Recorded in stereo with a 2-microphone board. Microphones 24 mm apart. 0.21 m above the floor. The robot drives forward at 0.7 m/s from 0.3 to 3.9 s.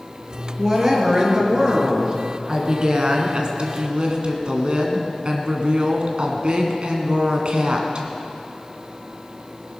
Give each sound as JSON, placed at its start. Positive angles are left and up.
{"t": 0.6, "sound": "a woman speaking", "side_deg": -25, "distance_m": 3.5}